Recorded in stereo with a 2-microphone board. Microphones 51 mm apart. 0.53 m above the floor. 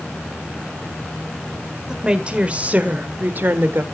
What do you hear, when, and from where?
1.9 s a woman speaking: 15° right (ahead or behind), 1.7 m; by 3.8 s 50° right (ahead or behind), 1.3 m